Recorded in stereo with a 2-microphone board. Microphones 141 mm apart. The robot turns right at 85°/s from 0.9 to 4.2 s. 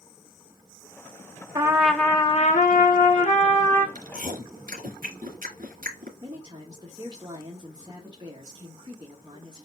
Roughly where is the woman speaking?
Right.